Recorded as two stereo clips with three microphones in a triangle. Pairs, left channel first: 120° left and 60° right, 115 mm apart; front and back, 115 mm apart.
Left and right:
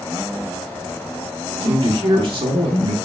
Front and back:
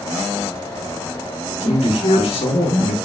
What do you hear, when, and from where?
1.6 s a man speaking: 25° right, 1.6 m